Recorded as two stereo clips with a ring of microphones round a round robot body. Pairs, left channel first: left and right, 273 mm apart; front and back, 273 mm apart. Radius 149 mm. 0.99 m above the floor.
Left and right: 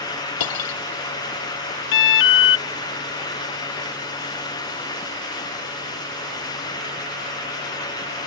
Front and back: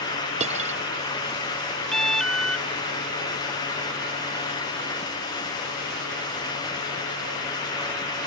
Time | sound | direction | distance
0.4 | cutlery clinking | 110° left | ?
1.9 | an alarm | 90° left | ?